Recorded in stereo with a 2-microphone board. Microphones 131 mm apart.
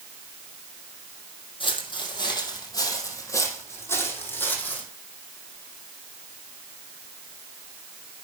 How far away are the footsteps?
About 2.5 m.